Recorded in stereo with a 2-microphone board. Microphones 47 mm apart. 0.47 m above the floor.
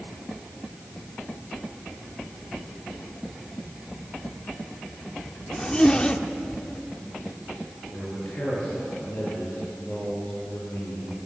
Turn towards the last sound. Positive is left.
turn(degrees=45)  # may be behind; listen again after turning